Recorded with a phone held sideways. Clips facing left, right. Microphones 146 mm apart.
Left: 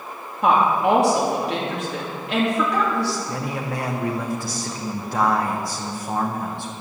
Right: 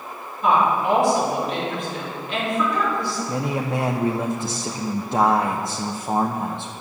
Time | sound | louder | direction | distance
0.4 | a woman speaking | left 1 dB | 75° left (ahead or behind) | 3 m
3.3 | a man speaking | right 3 dB | 20° right (ahead or behind) | 0.7 m